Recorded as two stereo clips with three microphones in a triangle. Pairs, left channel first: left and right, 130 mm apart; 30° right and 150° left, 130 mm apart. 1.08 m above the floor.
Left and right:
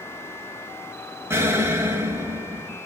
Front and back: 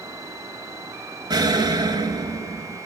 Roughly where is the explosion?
Behind right.